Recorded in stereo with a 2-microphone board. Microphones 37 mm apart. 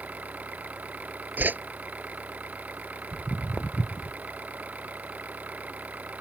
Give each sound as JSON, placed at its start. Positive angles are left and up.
{"t": 0.0, "sound": "an engine running", "side_deg": -40}
{"t": 1.4, "sound": "a whoosh", "side_deg": -55}
{"t": 3.1, "sound": "footsteps", "side_deg": 15}